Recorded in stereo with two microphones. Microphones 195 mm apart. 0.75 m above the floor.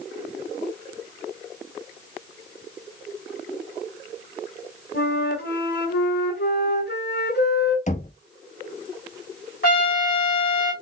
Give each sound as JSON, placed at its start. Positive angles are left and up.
{"t": 4.9, "sound": "a flute", "side_deg": 55, "distance_m": 1.9}
{"t": 7.9, "sound": "knocking", "side_deg": 40, "distance_m": 0.5}
{"t": 9.6, "sound": "a trumpet", "side_deg": 50, "distance_m": 2.0}